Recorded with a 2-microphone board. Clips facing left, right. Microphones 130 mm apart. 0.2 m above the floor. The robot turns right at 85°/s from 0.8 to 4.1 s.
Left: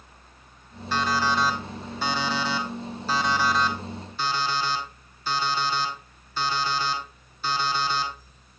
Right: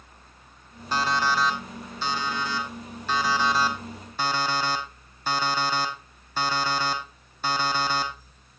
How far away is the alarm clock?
About 3.5 m.